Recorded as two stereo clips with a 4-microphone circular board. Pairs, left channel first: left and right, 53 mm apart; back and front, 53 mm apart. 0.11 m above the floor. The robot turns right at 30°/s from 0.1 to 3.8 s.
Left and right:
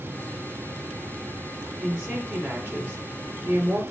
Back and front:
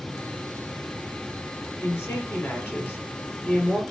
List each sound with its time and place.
1.8 s a woman speaking: 155° right, 2.5 m; by 3.8 s 95° right, 2.5 m